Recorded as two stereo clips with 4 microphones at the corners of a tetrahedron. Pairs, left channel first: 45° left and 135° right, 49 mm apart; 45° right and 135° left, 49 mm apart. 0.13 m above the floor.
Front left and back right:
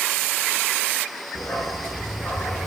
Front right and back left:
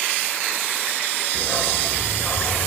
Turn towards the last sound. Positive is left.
turn(degrees=-10)